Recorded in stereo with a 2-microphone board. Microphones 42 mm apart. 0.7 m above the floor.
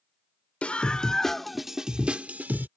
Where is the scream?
30° left (ahead or behind); by 2.7 s 50° right (ahead or behind).